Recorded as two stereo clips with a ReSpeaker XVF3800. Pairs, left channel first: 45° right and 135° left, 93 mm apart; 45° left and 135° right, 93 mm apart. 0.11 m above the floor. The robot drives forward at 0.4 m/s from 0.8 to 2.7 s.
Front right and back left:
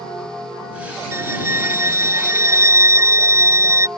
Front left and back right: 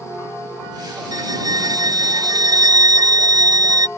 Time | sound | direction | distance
1.1 | a violin | 170° right | ?